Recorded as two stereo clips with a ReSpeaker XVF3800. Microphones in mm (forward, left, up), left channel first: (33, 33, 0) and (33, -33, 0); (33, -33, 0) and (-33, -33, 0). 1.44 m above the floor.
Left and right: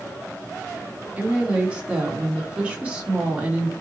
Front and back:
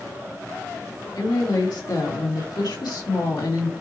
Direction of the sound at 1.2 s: 15° right.